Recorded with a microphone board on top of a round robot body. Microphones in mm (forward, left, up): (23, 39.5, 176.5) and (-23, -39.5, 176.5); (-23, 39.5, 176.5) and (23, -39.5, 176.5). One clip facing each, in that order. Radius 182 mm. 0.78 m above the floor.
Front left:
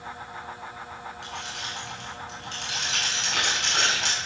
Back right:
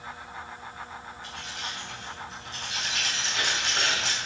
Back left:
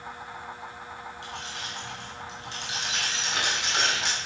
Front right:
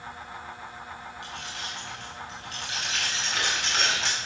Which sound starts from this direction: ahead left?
Keys jangling, at 1.2 s.